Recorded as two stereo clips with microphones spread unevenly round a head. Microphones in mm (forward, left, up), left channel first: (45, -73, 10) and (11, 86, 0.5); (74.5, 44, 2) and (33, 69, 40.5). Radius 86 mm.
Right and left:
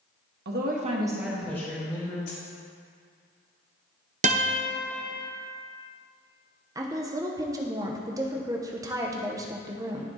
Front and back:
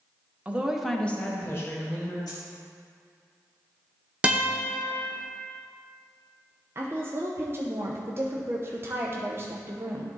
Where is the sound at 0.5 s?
80° left, 1.3 m; by 2.2 s 15° right, 2.5 m.